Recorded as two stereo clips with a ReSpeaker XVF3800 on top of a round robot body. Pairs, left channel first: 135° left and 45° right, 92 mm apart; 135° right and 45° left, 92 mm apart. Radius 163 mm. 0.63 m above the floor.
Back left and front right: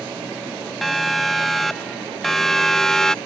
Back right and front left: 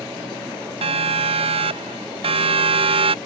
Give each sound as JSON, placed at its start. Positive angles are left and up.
{"t": 0.8, "sound": "a siren", "azimuth_deg": 45}